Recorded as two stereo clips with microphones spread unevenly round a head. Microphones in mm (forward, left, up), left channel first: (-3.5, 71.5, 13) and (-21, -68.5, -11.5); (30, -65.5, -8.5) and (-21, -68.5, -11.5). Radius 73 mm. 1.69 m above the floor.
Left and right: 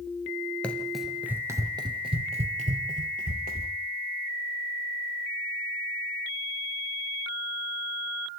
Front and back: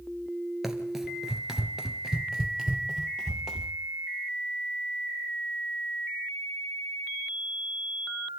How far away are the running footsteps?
About 1.7 m.